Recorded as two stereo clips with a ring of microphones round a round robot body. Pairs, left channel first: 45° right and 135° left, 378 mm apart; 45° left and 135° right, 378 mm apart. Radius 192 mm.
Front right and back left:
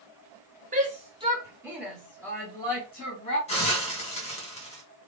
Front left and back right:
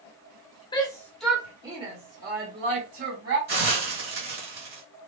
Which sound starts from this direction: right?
A hiss, at 3.5 s.